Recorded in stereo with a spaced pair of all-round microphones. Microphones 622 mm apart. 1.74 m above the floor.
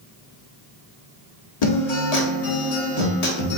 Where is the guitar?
75° left (ahead or behind), 0.9 m.